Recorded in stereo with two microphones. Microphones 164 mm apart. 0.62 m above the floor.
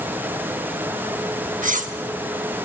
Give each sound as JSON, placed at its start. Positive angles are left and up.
{"t": 1.6, "sound": "cutlery clinking", "side_deg": -60, "distance_m": 0.6}